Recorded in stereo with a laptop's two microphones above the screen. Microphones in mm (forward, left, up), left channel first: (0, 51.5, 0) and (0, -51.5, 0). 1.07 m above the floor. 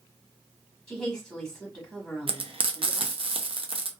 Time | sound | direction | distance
0.9 | a woman speaking | 10° left (ahead or behind) | 1.5 m
2.3 | frying | 60° right (ahead or behind) | 0.6 m